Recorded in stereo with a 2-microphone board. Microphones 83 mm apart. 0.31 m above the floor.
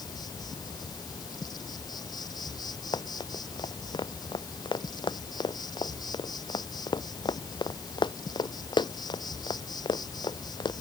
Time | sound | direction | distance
0.0 | an insect | 60° left (ahead or behind) | ?
2.9 | running footsteps | 85° left | ?